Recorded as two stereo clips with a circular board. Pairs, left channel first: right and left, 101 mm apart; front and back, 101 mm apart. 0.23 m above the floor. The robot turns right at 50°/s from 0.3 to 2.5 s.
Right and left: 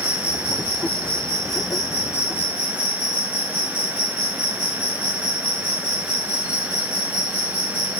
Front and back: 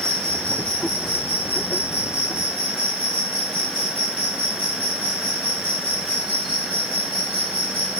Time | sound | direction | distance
0.0 | an insect | 70° right | 1.6 m